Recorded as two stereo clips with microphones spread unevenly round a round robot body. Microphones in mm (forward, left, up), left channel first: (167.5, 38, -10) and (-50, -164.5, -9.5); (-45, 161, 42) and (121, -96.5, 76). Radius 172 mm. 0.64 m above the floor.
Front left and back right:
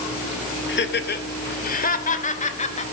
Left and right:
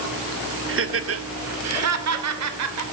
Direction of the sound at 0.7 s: 5° right.